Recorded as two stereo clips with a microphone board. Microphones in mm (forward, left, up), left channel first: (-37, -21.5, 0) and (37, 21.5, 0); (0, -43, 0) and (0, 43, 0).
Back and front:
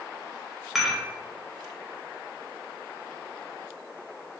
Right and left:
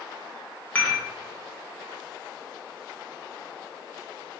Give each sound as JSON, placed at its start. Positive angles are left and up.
{"t": 0.8, "sound": "dishes clattering", "azimuth_deg": -55, "distance_m": 0.8}